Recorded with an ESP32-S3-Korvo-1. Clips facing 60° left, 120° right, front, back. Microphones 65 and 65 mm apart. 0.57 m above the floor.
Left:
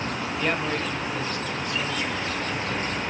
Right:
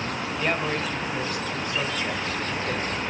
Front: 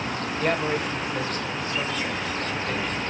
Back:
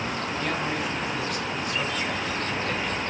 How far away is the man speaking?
About 2 m.